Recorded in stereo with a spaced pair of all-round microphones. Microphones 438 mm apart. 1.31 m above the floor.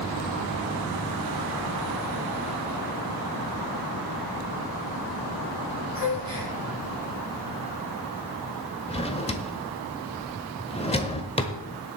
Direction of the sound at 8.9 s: 15° left (ahead or behind).